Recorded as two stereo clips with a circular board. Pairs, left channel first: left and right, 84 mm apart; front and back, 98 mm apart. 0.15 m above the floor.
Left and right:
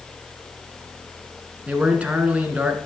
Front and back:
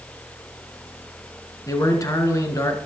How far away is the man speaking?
About 1.7 m.